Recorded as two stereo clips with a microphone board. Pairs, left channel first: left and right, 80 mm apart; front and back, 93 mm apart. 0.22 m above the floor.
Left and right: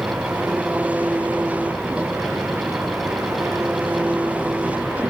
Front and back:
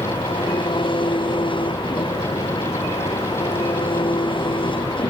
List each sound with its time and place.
0.0 s an engine running: 20° right